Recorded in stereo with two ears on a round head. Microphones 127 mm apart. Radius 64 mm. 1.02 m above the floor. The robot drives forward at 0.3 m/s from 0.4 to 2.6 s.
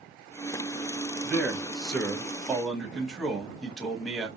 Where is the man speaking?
Centre (ahead or behind), 1.0 m.